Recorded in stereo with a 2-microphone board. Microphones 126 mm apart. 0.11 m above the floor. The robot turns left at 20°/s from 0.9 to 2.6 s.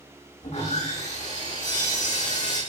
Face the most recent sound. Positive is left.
turn(degrees=80)